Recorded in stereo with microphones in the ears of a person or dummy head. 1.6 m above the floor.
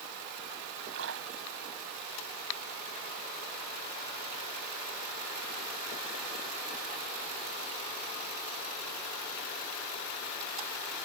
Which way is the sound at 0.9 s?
65° right (ahead or behind).